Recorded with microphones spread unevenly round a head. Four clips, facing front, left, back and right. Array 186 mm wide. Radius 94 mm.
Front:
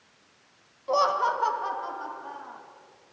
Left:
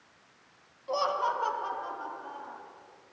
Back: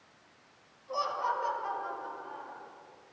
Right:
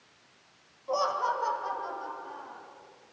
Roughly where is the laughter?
Ahead.